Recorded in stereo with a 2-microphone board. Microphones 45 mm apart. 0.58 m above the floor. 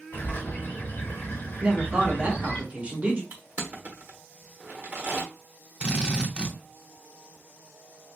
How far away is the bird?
About 1.8 m.